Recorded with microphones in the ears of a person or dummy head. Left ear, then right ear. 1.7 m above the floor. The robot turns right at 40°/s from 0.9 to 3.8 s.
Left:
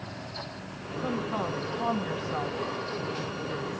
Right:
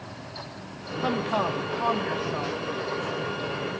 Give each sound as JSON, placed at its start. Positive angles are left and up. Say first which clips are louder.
{"t": 1.0, "sound": "a woman speaking", "louder": "right 6 dB", "azimuth_deg": -45, "distance_m": 1.2}